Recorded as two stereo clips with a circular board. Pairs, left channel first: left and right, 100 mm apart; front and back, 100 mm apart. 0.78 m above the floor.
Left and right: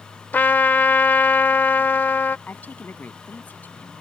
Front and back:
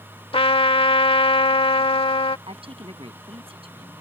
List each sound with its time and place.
0.3 s a trumpet: 20° left
2.5 s a woman speaking: 160° left